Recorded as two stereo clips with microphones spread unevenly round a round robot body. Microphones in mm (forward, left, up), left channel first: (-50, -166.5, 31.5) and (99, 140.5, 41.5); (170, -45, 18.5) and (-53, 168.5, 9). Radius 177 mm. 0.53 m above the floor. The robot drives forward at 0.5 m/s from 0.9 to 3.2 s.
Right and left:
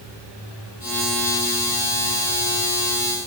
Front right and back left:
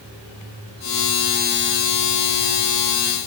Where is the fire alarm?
No fire alarm in this recording.